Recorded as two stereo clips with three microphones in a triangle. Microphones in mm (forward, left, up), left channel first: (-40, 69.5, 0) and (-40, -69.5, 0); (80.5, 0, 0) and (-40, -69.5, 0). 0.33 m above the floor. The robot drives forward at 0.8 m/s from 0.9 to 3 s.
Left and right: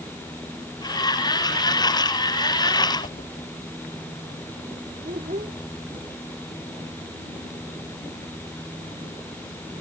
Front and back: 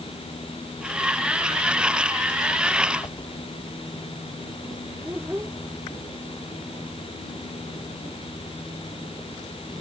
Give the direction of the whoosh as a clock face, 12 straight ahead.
9 o'clock.